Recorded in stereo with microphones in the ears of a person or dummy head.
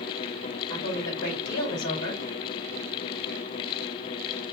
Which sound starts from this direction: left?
A woman speaking, at 0.7 s.